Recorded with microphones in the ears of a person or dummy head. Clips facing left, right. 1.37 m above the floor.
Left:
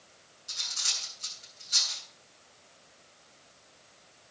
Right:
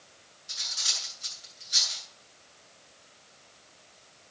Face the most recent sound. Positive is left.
turn(degrees=65)  # may be behind; listen again after turning